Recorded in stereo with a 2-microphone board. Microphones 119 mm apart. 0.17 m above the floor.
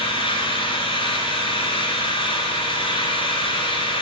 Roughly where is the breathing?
I don't hear breathing.